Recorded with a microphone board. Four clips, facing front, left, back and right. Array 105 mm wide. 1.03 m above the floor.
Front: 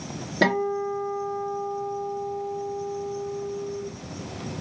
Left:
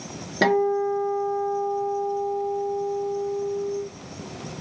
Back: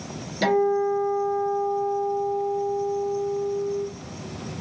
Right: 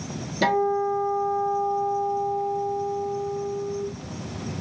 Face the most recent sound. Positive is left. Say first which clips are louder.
# left 1 dB, back 3 dB
turn(degrees=50)